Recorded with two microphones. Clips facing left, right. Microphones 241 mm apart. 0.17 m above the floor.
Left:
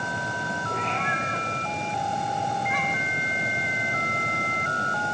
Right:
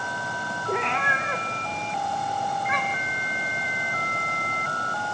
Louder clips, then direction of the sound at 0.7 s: Right 7 dB; 75° right (ahead or behind).